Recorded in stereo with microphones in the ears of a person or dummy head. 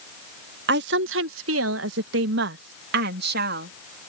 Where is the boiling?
No boiling in this recording.